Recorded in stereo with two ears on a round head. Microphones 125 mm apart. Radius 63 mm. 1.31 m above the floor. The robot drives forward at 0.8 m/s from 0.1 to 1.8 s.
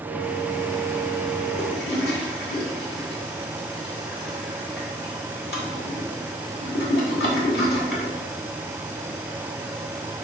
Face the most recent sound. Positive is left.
turn(degrees=90)